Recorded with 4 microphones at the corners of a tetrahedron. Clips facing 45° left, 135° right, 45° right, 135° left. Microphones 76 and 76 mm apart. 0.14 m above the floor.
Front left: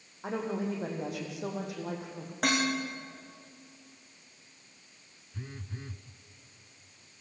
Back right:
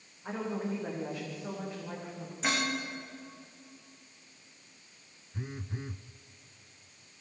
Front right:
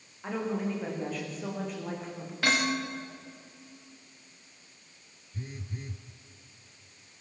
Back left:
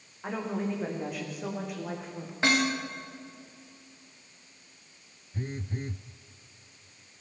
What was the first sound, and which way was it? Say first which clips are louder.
A woman speaking: front left 2 dB, even; 60° left.